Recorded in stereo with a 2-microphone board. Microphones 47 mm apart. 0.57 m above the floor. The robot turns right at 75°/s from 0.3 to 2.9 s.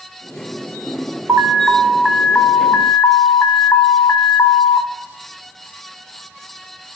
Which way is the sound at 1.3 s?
60° right.